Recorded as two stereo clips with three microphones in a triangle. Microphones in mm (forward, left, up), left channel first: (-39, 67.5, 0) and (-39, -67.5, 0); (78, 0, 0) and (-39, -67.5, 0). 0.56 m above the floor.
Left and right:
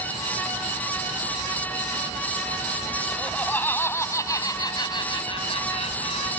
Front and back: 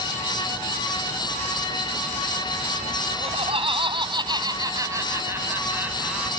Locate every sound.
3.1 s laughter: 170° left; by 6.3 s 125° left